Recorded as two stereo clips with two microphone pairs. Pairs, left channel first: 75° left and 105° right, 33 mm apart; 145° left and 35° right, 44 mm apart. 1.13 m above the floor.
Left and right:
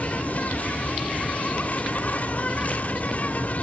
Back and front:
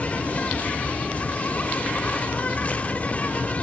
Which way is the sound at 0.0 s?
95° left.